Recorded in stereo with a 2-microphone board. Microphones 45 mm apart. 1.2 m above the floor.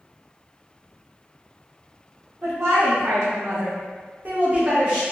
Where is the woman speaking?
75° right (ahead or behind), 1.4 m; by 5.0 s 15° right (ahead or behind), 1.1 m.